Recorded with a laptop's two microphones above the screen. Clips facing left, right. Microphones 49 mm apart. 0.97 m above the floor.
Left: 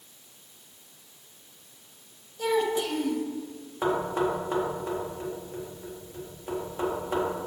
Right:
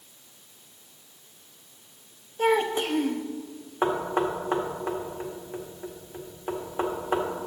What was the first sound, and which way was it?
A child speaking, 40° right (ahead or behind).